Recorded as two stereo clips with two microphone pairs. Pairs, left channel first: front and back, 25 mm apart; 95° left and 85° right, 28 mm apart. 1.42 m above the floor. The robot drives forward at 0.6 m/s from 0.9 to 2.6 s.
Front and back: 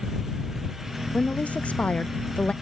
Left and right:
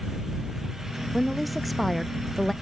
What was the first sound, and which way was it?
A woman speaking, 5° left.